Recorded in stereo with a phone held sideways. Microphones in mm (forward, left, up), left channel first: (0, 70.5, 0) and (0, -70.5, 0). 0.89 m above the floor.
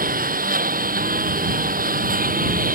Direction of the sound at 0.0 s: 90° right.